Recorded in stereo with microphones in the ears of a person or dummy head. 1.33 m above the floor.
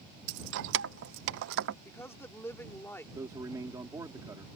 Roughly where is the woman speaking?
Centre.